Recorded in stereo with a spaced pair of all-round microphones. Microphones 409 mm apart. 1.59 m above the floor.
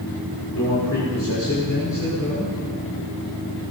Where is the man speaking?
55° left (ahead or behind), 5.5 m.